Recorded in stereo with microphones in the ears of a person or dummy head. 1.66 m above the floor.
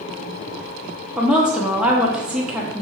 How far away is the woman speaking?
About 0.5 m.